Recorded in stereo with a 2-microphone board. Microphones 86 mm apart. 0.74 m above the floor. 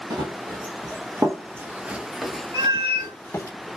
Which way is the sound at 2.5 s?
65° right (ahead or behind).